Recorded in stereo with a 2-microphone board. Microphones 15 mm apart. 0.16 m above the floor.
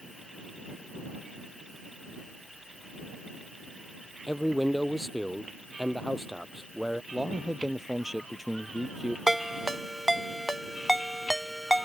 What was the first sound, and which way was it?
A man speaking, 5° right (ahead or behind).